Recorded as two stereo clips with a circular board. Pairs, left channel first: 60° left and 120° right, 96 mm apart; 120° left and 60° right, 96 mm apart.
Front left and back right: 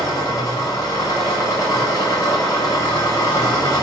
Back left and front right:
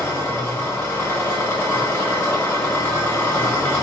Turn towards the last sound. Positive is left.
turn(degrees=80)